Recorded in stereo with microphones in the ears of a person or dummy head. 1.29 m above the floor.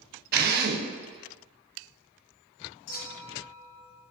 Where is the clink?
60° left (ahead or behind), 1.9 m.